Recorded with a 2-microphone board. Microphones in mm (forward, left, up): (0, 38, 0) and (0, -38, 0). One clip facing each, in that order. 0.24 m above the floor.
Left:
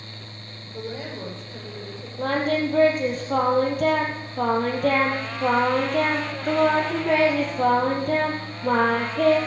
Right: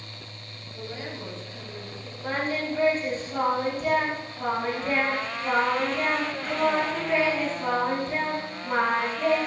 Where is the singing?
75° left (ahead or behind), 3.5 m.